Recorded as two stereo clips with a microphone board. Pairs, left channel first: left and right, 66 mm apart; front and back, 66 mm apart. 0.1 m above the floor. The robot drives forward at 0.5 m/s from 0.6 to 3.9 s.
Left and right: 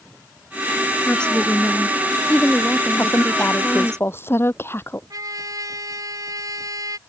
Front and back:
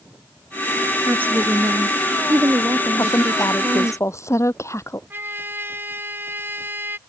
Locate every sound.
1.1 s a woman speaking: 150° left; by 4.0 s 170° left
3.0 s a woman speaking: 35° left; by 5.0 s 40° left
5.1 s a trumpet: 120° right